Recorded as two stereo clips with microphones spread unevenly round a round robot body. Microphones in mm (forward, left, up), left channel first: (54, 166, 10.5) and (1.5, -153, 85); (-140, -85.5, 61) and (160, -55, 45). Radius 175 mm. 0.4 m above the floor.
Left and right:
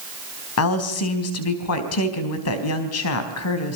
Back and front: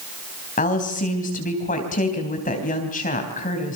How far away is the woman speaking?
About 3.5 m.